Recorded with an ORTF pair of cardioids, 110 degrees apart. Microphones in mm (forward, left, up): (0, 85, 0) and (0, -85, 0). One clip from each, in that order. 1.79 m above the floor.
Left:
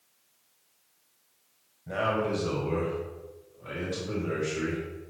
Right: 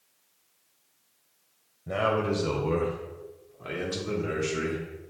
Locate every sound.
1.9 s a man speaking: 25° right, 0.9 m; by 4.8 s 75° right, 1.9 m